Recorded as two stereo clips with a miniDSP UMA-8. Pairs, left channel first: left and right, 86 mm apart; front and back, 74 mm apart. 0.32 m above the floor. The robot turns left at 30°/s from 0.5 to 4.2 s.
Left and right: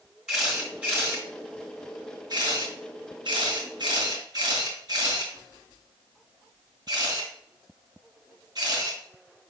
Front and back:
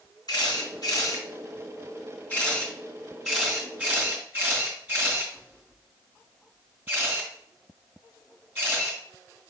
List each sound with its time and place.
0.3 s a camera shutter: 5° right, 3 m; by 9.0 s 115° right, 3 m